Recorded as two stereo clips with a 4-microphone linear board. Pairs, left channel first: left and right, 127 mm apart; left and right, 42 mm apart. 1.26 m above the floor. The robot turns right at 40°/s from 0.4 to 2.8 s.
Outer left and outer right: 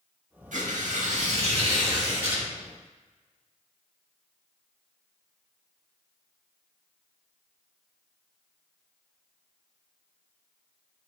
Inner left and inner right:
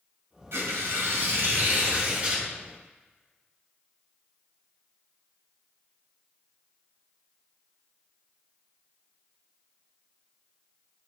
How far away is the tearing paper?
About 1.9 m.